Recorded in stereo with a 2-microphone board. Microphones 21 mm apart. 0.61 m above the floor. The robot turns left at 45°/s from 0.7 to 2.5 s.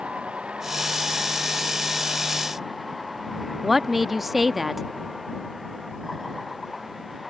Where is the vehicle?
85° right; by 7.3 s 10° right (ahead or behind).